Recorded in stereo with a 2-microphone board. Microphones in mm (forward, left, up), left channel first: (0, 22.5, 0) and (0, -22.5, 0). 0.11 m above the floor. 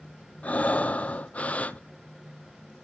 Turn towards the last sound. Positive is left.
turn(degrees=30)  # may be behind; listen again after turning